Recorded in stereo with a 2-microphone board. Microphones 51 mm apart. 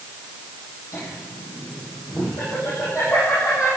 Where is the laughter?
75° left (ahead or behind), 6.5 m.